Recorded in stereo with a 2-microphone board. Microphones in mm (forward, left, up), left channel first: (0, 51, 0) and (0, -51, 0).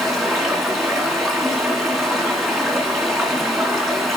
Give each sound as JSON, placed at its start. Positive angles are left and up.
{"t": 0.0, "sound": "running water", "side_deg": 0, "distance_m": 2.5}